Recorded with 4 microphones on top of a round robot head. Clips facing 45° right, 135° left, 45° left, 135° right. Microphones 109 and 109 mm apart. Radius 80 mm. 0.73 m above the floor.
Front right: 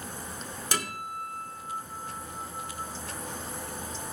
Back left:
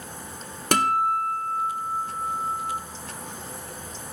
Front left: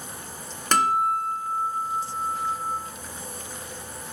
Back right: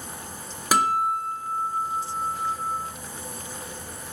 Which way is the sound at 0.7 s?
145° left.